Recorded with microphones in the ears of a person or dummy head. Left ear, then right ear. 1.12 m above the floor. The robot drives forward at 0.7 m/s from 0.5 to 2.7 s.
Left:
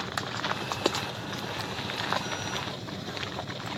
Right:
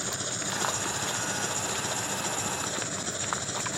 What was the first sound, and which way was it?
An engine running, 65° right (ahead or behind).